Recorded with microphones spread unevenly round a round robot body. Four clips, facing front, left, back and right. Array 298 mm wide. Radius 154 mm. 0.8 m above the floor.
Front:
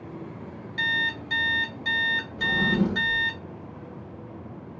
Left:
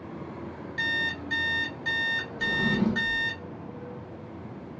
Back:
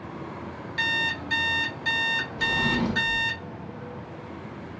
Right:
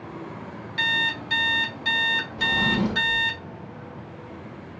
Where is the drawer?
60° right, 1.0 m.